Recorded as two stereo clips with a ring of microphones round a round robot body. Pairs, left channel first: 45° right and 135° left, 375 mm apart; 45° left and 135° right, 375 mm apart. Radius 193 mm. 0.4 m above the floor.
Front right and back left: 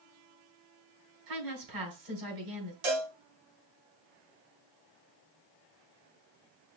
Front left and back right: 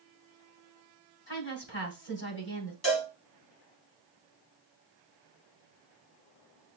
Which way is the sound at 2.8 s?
120° left.